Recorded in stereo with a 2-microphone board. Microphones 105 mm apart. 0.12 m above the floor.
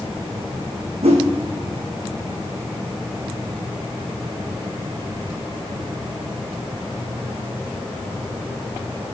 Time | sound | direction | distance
1.0 | a whoosh | 75° right (ahead or behind) | 1.3 m